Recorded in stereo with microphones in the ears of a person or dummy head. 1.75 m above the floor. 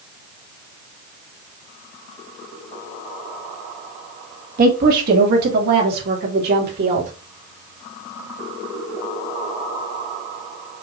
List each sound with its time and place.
4.6 s a woman speaking: 50° right (ahead or behind), 2.5 m; by 7.1 s 55° right (ahead or behind), 3.5 m